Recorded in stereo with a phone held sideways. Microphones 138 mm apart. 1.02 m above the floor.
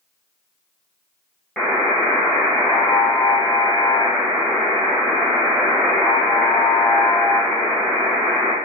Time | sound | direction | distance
1.6 | a buzzer | 5° left (ahead or behind) | 0.6 m